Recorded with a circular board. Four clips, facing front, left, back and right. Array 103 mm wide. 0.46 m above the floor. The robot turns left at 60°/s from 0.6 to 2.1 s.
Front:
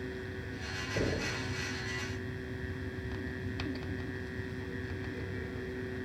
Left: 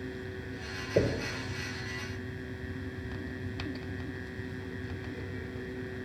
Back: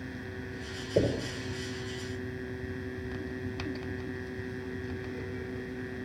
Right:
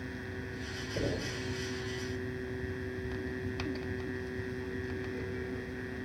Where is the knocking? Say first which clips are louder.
Left 7 dB, back 6 dB; 135° left, 7 m; by 1.3 s 115° left, 7 m.